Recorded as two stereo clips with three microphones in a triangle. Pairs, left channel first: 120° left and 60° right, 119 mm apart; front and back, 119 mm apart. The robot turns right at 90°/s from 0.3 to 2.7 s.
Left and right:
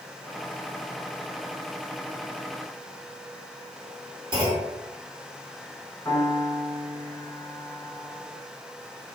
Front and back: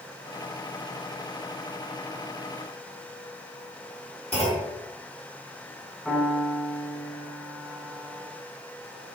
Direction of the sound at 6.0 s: 80° left.